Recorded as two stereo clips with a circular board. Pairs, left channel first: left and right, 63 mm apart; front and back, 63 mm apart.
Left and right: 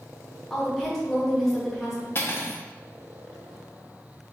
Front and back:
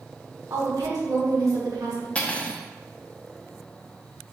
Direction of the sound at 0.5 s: 175° left.